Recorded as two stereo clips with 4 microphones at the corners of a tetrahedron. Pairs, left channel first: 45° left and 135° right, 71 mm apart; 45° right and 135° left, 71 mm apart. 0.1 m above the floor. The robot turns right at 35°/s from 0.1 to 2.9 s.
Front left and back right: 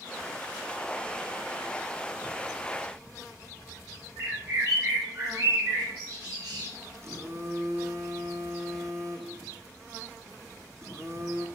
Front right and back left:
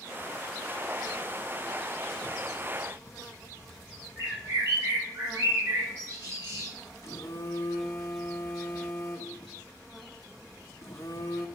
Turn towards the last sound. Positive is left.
turn(degrees=-90)